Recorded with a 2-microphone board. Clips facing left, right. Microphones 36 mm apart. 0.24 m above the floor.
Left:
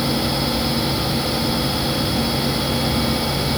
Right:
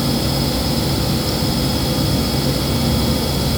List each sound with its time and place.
0.0 s running water: 80° right, 1.5 m